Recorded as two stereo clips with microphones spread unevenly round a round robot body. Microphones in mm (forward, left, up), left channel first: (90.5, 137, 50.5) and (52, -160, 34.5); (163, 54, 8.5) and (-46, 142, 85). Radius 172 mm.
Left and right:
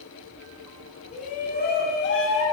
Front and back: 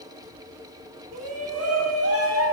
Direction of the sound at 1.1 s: 150° left.